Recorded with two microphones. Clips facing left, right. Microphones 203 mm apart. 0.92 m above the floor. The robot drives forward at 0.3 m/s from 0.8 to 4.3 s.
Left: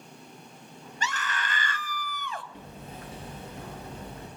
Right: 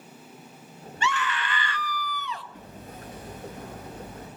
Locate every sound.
1.0 s a scream: 40° left (ahead or behind), 1.4 m; by 2.4 s 50° left (ahead or behind), 1.2 m
2.5 s hammering: 25° left (ahead or behind), 6.5 m